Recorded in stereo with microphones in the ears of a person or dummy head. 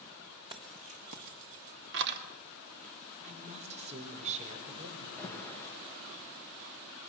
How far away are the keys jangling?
About 2 m.